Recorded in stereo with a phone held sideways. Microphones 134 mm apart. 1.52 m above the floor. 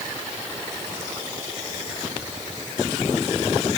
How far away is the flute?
No flute in this recording.